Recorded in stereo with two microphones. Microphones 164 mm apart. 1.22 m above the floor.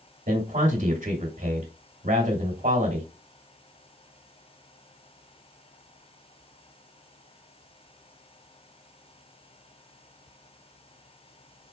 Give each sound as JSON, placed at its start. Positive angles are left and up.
{"t": 0.3, "sound": "a man speaking", "side_deg": -50, "distance_m": 1.9}